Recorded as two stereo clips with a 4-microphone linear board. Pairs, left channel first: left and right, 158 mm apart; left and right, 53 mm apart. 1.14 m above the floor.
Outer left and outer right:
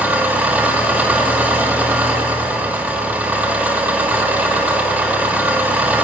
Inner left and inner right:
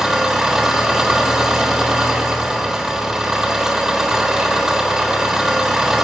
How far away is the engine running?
About 1.3 m.